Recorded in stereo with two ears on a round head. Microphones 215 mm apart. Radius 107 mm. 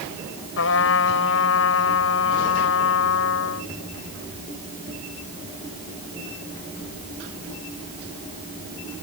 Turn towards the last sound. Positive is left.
turn(degrees=60)  # may be behind; listen again after turning